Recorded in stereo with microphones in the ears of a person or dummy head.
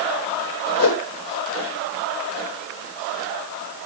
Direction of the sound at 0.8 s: 70° left (ahead or behind).